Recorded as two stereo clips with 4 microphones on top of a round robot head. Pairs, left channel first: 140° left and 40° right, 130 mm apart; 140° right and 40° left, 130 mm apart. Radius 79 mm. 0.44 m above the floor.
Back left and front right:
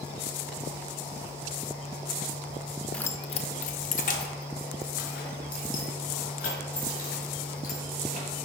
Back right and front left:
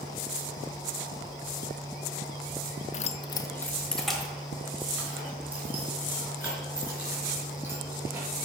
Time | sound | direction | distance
2.9 | keys jangling | 140° right | 0.6 m